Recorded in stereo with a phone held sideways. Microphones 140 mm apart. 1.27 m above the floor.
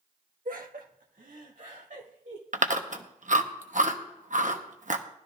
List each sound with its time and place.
0.5 s laughter: 80° right, 1.5 m; by 2.4 s 65° right (ahead or behind), 3.5 m
2.5 s chewing: 65° right (ahead or behind), 1.0 m